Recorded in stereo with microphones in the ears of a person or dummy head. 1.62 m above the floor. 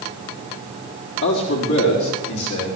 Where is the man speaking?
65° left (ahead or behind), 4 m; by 2.7 s 80° left, 6 m.